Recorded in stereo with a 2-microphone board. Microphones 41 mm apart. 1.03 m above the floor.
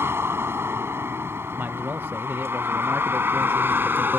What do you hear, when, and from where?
0.0 s a vehicle: 85° right; by 4.2 s 55° right (ahead or behind)
1.5 s a man speaking: 60° right (ahead or behind)